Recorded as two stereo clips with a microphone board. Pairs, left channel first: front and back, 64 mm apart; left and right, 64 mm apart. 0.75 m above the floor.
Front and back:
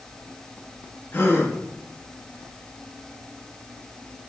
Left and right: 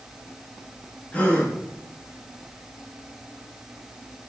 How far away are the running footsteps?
No running footsteps in this recording.